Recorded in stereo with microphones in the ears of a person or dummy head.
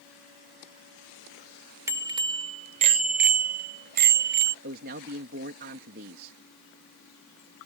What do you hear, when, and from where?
1.9 s a bicycle bell: 15° right (ahead or behind); by 4.5 s 60° right (ahead or behind)
4.6 s a man speaking: 55° right (ahead or behind)